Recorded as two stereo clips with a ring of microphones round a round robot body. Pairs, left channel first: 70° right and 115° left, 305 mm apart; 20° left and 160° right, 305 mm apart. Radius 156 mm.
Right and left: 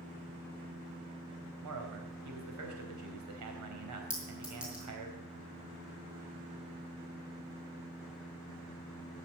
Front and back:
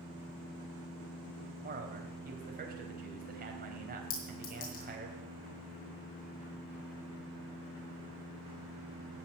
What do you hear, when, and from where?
1.6 s a man speaking: 140° left, 3.5 m
4.1 s a clink: 25° left, 4.5 m